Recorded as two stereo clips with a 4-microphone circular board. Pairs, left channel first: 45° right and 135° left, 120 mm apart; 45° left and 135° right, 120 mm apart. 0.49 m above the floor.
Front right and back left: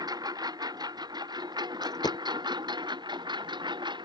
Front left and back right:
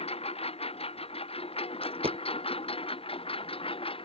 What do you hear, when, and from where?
0.0 s a lawn mower: 80° left; by 4.1 s 85° left
1.8 s a dropped coin: 100° right